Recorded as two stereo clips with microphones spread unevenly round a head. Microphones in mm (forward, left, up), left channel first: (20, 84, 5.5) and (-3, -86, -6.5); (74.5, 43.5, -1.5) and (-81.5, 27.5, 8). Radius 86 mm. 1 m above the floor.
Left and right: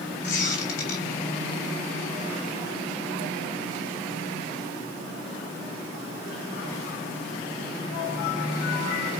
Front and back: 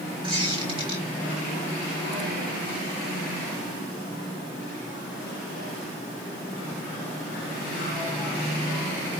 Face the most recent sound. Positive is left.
turn(degrees=125)